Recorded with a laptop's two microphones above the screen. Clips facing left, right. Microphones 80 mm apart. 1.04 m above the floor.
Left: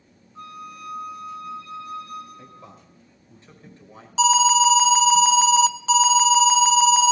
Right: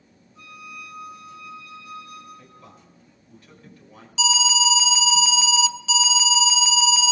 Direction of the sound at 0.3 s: 45° left (ahead or behind).